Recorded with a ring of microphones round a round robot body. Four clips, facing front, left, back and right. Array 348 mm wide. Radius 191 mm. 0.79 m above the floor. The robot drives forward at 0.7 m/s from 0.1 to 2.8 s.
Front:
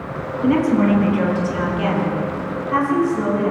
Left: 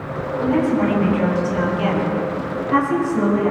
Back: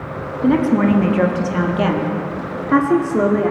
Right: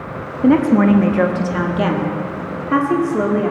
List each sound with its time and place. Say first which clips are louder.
0.4 s a woman speaking: right 6 dB, back 1 dB; 100° right, 1.4 m; by 3.5 s 145° right, 2.5 m